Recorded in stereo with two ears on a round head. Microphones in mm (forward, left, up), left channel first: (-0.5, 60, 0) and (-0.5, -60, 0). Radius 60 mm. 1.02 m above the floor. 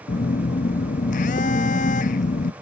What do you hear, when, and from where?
0.1 s a phone buzzing: 60° left (ahead or behind), 0.6 m